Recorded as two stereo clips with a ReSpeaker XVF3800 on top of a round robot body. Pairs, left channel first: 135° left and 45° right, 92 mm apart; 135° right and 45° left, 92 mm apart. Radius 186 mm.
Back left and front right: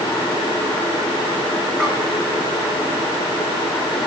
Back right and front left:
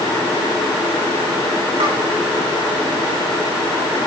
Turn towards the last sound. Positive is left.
turn(degrees=55)